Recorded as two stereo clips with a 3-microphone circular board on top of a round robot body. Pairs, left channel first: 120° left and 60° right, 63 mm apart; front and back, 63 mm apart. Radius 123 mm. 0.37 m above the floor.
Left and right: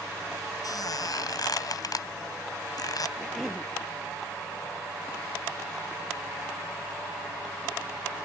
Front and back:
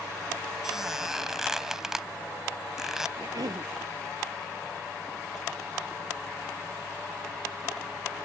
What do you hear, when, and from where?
0.6 s a squeak: 95° left
3.2 s a cough: 150° right